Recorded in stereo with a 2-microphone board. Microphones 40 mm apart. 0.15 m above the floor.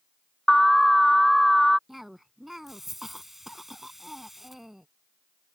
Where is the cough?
5° right (ahead or behind).